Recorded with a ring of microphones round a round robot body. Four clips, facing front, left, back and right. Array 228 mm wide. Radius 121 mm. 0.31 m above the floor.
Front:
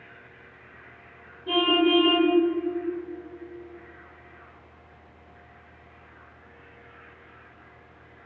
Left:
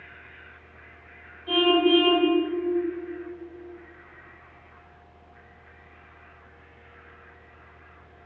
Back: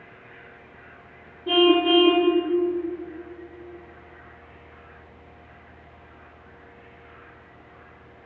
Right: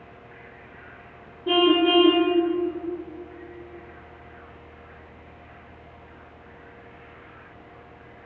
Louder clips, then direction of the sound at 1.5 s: Right 1 dB, back 4 dB; 115° right.